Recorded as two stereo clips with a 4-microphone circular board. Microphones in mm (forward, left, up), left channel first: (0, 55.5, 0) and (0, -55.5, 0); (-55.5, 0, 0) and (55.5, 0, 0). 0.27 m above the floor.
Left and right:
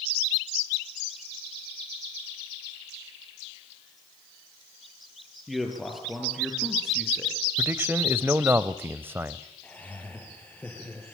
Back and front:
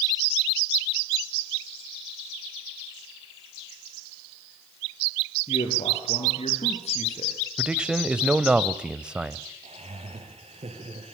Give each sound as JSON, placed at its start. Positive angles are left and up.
{"t": 5.5, "sound": "a man speaking", "azimuth_deg": 180, "distance_m": 6.5}
{"t": 7.6, "sound": "a man speaking", "azimuth_deg": -70, "distance_m": 0.9}
{"t": 9.6, "sound": "laughter", "azimuth_deg": 15, "distance_m": 7.0}